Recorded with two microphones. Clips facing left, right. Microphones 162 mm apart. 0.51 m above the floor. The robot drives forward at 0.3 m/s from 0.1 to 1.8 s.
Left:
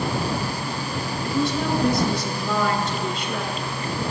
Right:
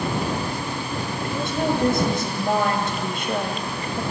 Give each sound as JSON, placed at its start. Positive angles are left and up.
{"t": 1.2, "sound": "a woman speaking", "side_deg": -55, "distance_m": 3.0}